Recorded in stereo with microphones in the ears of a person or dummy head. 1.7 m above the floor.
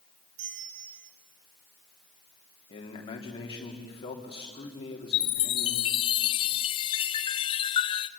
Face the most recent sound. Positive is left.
turn(degrees=30)  # may be behind; listen again after turning